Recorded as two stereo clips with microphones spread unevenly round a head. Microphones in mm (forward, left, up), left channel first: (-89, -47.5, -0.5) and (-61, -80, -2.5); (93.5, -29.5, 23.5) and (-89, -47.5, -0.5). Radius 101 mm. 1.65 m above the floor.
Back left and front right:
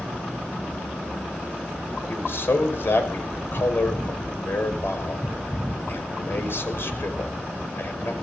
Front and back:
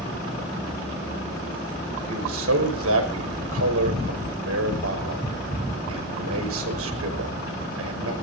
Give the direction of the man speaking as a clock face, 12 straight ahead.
7 o'clock.